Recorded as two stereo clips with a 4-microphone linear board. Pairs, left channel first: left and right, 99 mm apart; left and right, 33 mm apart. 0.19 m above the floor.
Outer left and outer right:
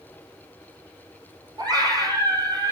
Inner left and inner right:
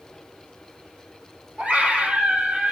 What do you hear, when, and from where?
1.6 s a scream: 40° right (ahead or behind), 6 m